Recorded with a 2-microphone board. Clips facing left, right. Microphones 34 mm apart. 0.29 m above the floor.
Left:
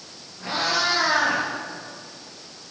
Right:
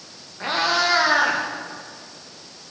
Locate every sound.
0.4 s a cat meowing: 50° right (ahead or behind), 8.5 m; by 1.4 s 55° right (ahead or behind), 8.5 m